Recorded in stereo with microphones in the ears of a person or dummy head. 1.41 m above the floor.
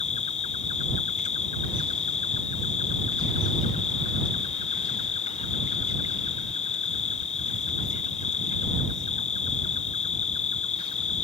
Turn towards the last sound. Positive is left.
turn(degrees=35)  # may be behind; listen again after turning